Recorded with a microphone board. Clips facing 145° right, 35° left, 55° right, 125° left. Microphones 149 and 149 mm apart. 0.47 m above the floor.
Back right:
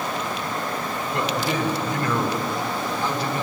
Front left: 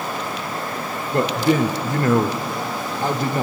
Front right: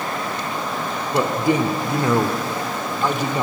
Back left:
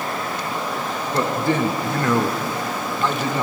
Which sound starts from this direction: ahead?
A man speaking, at 1.1 s.